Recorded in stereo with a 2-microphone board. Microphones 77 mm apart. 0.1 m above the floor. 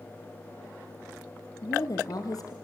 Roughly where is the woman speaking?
Left.